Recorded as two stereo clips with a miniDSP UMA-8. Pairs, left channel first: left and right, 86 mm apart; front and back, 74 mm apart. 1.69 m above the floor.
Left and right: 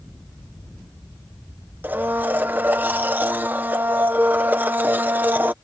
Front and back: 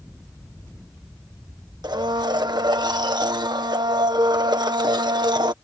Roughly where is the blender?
Behind.